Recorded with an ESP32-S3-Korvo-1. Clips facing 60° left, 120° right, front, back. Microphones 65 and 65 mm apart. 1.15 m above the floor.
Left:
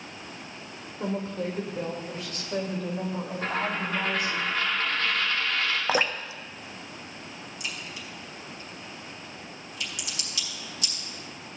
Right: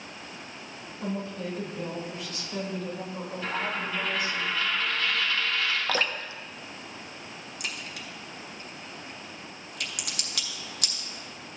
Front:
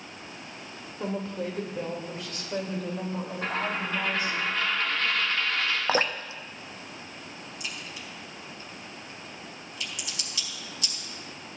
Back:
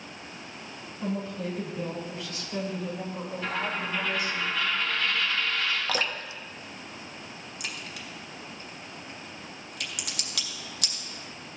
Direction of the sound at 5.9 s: 10° left.